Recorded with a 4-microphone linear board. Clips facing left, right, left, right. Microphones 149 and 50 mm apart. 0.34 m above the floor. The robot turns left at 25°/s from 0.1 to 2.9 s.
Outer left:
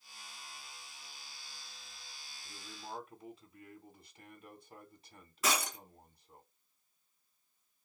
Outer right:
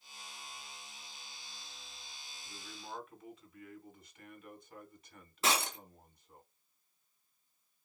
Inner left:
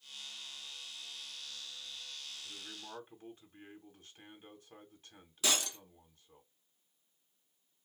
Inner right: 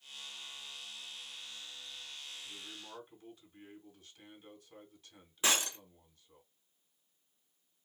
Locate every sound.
2.4 s a man speaking: 40° left (ahead or behind), 2.0 m; by 6.4 s 35° left (ahead or behind), 2.0 m
5.4 s breaking glass: 30° right (ahead or behind), 1.3 m